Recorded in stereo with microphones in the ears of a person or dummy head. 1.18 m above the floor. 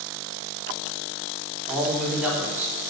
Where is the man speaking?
Centre (ahead or behind), 3 m; by 2.9 s 15° right (ahead or behind), 3.5 m.